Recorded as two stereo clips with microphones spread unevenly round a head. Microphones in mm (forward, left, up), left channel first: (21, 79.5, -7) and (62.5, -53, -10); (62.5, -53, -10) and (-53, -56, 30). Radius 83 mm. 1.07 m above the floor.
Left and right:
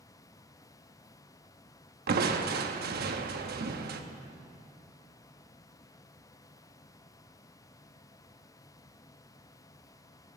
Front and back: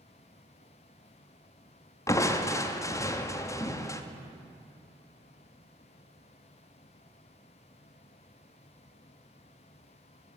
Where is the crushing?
70° right, 1.0 m.